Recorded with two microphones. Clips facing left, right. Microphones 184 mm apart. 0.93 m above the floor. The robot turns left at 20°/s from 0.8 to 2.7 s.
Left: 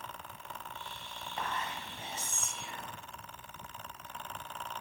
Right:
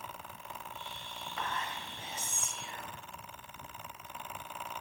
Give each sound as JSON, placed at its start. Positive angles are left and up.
{"t": 1.4, "sound": "whispering", "side_deg": 25, "distance_m": 1.0}